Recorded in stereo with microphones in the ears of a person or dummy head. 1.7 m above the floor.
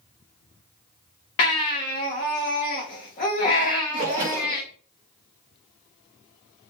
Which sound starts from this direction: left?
A baby crying, at 1.4 s.